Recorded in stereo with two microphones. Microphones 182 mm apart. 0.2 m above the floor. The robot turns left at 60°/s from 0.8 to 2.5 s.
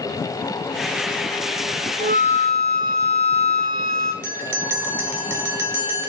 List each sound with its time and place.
2.0 s a flute: 55° right, 1.1 m; by 4.1 s 85° right, 1.1 m
4.2 s a bell: 10° right (ahead or behind), 0.8 m